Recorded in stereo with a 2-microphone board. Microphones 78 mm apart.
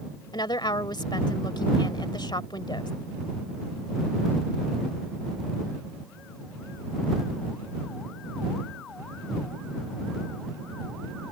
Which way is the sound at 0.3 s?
75° left (ahead or behind).